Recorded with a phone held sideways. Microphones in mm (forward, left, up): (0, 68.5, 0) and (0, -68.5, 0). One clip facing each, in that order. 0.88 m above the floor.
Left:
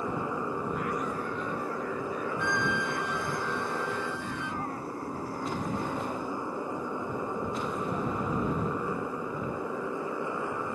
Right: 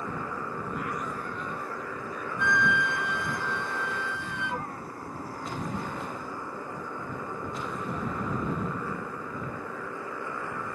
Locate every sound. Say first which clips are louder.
0.0 s a motorcycle: left 3 dB; 15° left (ahead or behind)
2.4 s a flute: right 6 dB; 80° right